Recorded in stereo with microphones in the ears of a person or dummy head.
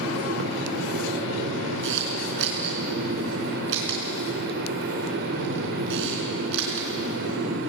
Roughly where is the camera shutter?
Right.